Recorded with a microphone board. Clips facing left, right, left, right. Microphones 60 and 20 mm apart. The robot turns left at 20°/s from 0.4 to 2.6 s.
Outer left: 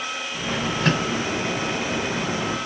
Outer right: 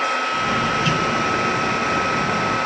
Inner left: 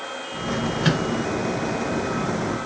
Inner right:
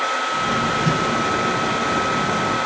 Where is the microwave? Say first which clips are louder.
Outer right 2 dB, inner right 2 dB; 45° left (ahead or behind), 2.5 m.